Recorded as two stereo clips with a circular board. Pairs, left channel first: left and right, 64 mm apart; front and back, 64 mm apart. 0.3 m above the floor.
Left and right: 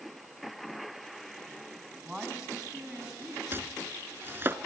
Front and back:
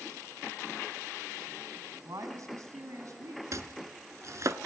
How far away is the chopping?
About 0.8 m.